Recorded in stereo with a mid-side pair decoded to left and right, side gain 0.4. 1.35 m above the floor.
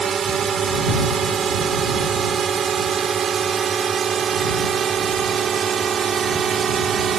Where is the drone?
50° right; by 7.2 s 55° right.